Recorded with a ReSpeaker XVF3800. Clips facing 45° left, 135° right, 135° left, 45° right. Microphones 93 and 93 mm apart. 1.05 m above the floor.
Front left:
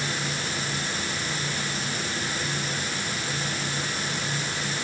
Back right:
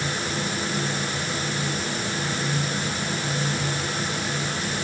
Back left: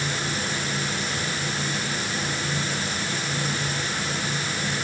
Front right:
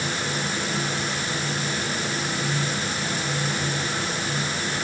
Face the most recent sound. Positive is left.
No sound to turn to.